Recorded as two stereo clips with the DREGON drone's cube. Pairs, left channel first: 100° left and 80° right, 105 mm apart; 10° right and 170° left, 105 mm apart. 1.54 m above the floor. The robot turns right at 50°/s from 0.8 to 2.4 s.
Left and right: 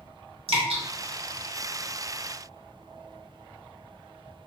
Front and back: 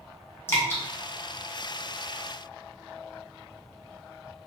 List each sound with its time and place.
0.5 s dripping: 75° right, 0.9 m